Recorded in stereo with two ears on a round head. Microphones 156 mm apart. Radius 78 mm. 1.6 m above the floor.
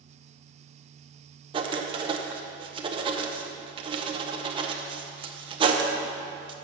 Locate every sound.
1.5 s writing: 30° right (ahead or behind), 0.7 m